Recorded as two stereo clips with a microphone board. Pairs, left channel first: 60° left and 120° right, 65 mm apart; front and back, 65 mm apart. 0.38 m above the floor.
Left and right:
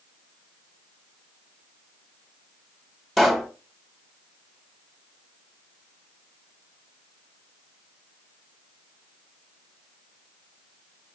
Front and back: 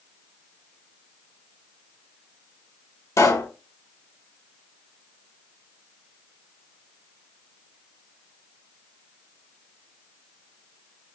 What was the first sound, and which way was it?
A pop, 30° right.